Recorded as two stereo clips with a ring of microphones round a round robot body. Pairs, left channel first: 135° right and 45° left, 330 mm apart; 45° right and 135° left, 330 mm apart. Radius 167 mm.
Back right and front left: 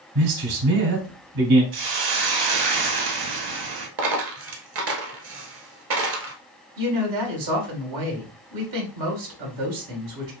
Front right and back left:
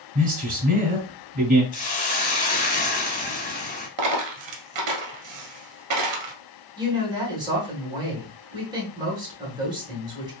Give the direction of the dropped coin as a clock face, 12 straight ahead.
9 o'clock.